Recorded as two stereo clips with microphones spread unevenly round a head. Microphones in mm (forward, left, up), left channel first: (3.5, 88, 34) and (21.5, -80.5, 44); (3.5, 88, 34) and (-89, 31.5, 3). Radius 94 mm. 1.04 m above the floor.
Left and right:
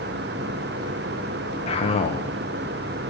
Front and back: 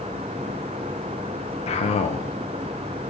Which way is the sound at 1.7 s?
55° left.